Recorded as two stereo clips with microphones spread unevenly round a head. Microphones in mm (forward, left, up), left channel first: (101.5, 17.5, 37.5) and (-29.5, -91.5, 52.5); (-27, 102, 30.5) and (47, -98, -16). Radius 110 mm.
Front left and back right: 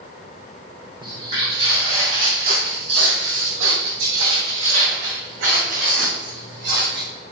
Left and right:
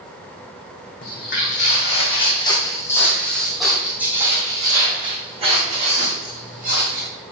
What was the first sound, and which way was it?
Footsteps, 150° left.